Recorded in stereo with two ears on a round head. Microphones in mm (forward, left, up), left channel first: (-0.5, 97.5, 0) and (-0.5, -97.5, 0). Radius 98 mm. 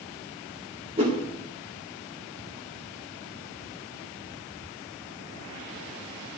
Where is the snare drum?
I don't hear a snare drum.